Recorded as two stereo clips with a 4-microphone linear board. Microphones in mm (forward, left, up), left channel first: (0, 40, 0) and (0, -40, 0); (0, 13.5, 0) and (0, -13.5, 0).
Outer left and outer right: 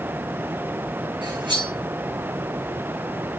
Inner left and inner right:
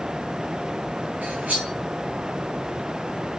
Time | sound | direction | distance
1.2 | cutlery clinking | 70° right (ahead or behind) | 4.5 m